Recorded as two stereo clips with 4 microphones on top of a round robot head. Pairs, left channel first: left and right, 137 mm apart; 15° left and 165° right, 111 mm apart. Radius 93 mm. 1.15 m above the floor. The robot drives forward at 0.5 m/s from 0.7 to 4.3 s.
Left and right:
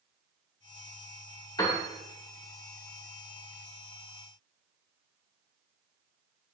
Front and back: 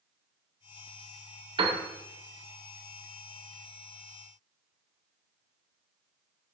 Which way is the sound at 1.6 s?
160° left.